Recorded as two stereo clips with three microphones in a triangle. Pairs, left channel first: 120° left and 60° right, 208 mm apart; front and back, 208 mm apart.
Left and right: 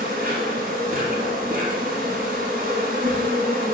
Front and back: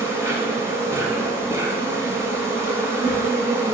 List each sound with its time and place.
0.0 s an insect: 105° right, 1.4 m